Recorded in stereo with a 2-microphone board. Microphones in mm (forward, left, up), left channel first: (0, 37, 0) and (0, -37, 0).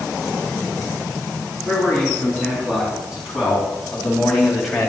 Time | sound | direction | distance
1.6 | a man speaking | 10° right (ahead or behind) | 6 m